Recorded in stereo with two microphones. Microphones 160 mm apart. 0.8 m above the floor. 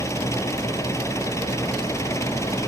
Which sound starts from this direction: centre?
An engine running, at 0.0 s.